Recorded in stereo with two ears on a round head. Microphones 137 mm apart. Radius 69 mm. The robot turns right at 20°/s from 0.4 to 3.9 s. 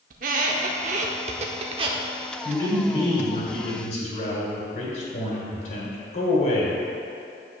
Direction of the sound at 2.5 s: 30° left (ahead or behind).